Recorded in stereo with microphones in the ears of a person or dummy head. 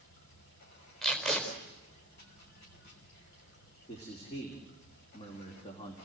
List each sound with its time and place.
0.0 s running water: 55° left (ahead or behind), 5 m
1.0 s tape being pulled: centre (ahead or behind), 4 m
3.9 s a man speaking: 30° left (ahead or behind), 3.5 m